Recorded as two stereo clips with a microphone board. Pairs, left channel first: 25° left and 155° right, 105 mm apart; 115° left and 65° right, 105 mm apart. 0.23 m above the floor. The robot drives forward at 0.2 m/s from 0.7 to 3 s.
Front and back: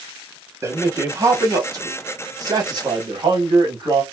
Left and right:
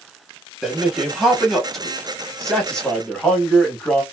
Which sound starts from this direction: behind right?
A man speaking, at 0.6 s.